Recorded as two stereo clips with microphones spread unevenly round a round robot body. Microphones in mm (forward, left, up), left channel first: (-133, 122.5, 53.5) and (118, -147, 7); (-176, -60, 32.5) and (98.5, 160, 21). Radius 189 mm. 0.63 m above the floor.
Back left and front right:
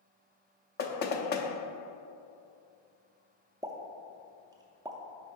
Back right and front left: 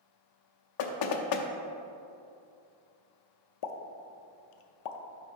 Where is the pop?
120° right, 0.5 m.